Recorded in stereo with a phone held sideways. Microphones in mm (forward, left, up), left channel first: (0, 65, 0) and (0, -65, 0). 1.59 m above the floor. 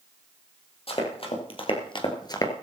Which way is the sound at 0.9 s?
45° left (ahead or behind).